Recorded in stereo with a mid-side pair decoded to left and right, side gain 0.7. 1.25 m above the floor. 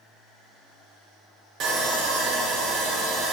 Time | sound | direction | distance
1.6 | sawing | 45° right | 1.1 m